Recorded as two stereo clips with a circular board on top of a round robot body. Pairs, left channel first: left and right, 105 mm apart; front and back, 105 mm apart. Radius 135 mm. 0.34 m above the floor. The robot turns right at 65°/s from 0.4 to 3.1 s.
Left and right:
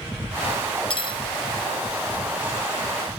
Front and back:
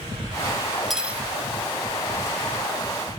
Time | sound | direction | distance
0.9 | cutlery clinking | 90° left | 0.5 m